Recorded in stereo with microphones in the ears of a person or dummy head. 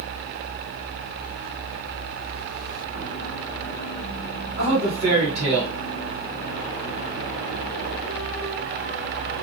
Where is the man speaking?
35° right (ahead or behind), 1.3 m.